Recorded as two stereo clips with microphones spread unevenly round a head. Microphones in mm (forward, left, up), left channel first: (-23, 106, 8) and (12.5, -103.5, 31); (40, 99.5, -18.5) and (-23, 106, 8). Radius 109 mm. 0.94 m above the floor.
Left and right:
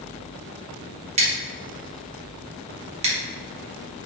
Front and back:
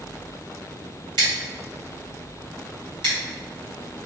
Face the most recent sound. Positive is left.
turn(degrees=-145)